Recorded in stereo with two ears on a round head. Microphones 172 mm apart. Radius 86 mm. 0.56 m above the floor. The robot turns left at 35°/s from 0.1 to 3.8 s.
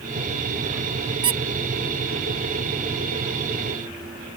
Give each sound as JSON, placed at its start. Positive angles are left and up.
{"t": 1.2, "sound": "a squeak", "side_deg": -25}